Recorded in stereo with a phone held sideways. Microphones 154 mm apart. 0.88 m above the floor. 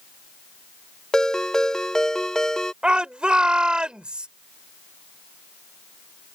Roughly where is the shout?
Centre.